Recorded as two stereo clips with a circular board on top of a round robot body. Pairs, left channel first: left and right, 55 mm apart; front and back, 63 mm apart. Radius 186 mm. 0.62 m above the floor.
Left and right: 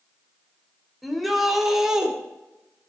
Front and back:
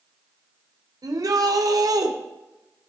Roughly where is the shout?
Behind.